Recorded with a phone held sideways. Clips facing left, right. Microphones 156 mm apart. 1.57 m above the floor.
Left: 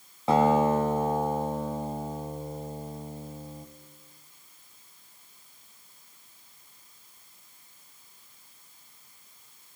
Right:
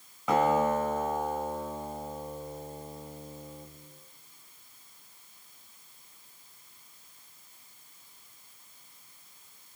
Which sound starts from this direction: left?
A guitar, at 0.3 s.